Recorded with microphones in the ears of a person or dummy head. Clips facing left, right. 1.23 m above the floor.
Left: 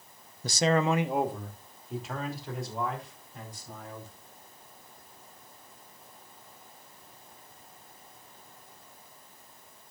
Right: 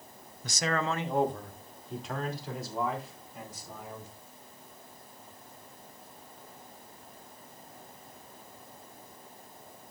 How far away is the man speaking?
About 0.7 m.